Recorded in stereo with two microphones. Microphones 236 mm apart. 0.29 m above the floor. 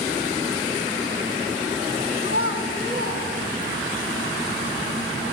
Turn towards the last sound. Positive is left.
turn(degrees=55)  # may be behind; listen again after turning